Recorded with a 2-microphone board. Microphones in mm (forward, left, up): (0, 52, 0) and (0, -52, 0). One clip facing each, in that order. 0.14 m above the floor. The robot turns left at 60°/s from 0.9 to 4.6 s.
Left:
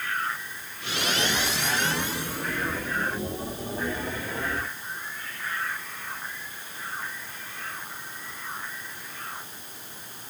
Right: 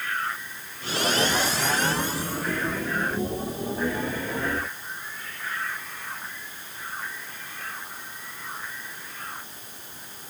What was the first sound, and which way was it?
Only background noise.